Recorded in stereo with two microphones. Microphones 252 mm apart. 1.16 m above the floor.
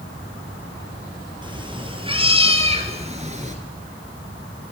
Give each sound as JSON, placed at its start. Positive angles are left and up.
{"t": 1.4, "sound": "a cat meowing", "side_deg": -20, "distance_m": 2.0}